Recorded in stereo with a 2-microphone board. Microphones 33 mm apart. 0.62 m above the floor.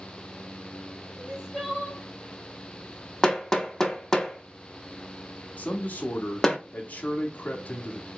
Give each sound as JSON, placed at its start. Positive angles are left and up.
{"t": 1.2, "sound": "crying", "side_deg": -20, "distance_m": 1.7}
{"t": 3.2, "sound": "hammering", "side_deg": 10, "distance_m": 0.6}
{"t": 5.6, "sound": "a man speaking", "side_deg": 55, "distance_m": 0.9}